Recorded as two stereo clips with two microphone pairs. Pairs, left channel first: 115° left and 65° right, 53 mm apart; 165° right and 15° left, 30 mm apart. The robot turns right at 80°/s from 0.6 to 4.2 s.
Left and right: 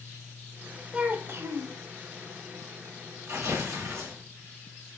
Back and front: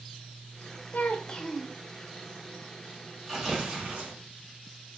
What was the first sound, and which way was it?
A child speaking, 135° right.